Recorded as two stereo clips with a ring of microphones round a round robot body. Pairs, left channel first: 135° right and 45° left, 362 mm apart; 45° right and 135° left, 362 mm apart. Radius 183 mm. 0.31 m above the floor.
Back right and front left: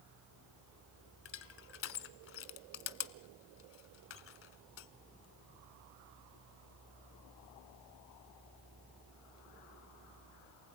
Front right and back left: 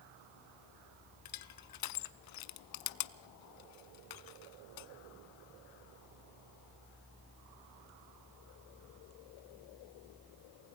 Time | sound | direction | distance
1.2 | crushing | 80° right | 0.9 m